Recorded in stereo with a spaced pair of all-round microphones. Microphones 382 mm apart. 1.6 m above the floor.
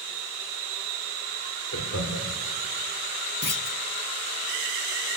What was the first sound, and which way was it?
Laughter, 40° left (ahead or behind).